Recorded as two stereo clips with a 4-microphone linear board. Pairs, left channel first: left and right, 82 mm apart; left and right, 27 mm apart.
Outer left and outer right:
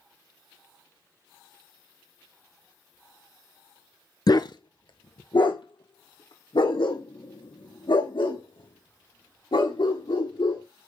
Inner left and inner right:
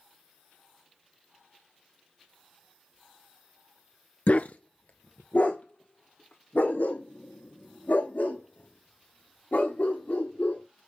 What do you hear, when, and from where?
4.3 s a dog barking: 55° left (ahead or behind), 0.8 m; by 10.6 s 85° left, 6.5 m